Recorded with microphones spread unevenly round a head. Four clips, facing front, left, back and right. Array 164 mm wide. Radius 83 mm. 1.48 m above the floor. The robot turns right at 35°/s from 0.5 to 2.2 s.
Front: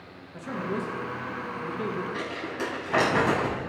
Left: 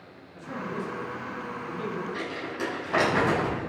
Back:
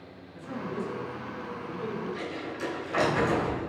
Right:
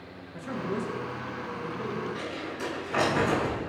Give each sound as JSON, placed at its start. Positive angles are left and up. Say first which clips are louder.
{"t": 0.3, "sound": "a man speaking", "louder": "right 2 dB, front 3 dB", "azimuth_deg": -35, "distance_m": 2.0}
{"t": 2.1, "sound": "crumpling", "louder": "left 2 dB, front 3 dB", "azimuth_deg": 30, "distance_m": 6.0}